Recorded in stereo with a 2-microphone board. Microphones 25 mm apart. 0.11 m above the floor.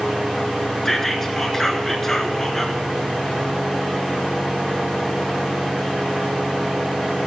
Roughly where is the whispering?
Centre.